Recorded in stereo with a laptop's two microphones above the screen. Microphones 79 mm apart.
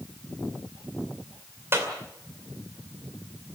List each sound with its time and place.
1.7 s a clap: 30° right (ahead or behind), 2.5 m